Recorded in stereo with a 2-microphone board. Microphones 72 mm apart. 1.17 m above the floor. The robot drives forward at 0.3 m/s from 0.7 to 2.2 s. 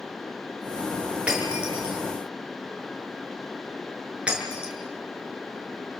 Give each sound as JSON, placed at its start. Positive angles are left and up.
{"t": 1.3, "sound": "breaking glass", "side_deg": -15, "distance_m": 7.0}